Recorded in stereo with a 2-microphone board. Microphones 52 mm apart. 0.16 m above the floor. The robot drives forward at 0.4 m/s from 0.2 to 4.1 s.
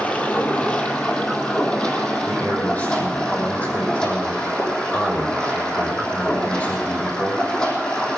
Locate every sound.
0.0 s running water: 30° left (ahead or behind), 2 m; by 8.2 s 15° left (ahead or behind), 3.5 m
2.2 s a man speaking: 35° left (ahead or behind), 4.5 m; by 8.1 s 30° left (ahead or behind), 5 m